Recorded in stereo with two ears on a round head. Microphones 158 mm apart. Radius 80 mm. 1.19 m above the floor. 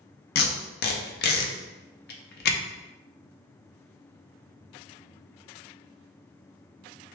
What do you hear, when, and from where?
0.3 s tape being pulled: 60° left (ahead or behind), 0.8 m